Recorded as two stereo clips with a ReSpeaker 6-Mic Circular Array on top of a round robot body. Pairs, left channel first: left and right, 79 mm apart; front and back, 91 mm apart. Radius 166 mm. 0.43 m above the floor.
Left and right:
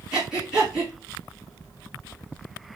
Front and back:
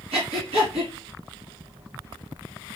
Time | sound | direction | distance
0.1 | breathing | 170° right | 2.5 m